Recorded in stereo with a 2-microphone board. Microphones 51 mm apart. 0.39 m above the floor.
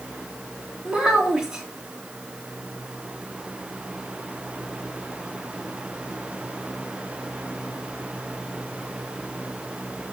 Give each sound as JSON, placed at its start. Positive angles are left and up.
{"t": 0.8, "sound": "a child speaking", "side_deg": -25, "distance_m": 2.0}